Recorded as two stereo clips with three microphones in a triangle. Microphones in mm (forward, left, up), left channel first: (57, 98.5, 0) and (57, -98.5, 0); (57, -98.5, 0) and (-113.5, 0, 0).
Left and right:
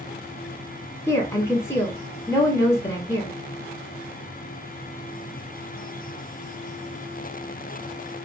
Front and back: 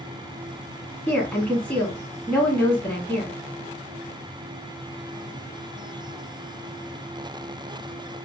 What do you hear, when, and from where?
1.1 s a woman speaking: 40° left, 1.1 m